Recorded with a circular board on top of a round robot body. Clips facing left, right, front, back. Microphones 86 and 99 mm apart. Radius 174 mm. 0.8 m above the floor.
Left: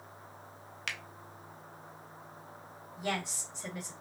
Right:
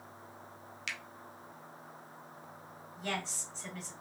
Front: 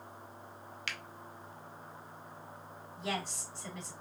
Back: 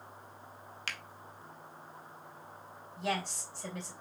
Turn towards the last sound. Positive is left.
turn(degrees=165)